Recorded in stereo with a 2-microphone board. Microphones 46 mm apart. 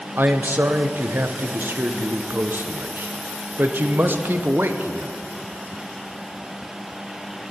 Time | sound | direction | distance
0.2 | a man speaking | 50° right (ahead or behind) | 0.8 m